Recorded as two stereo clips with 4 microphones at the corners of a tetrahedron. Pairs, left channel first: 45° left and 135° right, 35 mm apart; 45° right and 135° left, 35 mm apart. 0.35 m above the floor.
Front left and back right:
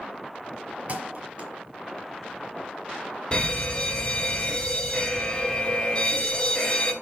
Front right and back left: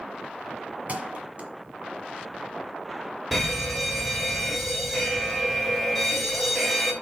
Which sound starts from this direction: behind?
A thud, at 0.9 s.